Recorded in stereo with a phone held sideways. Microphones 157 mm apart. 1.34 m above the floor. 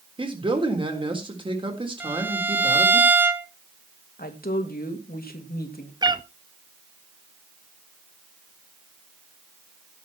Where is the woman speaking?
75° left (ahead or behind), 2.5 m.